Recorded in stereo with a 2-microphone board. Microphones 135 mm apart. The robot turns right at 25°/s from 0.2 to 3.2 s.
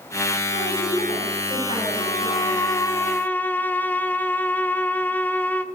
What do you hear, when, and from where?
0.5 s a woman speaking: 85° left, 7 m; by 3.0 s 145° left, 7 m
2.0 s a violin: 135° left, 0.6 m; by 5.7 s 165° left, 0.6 m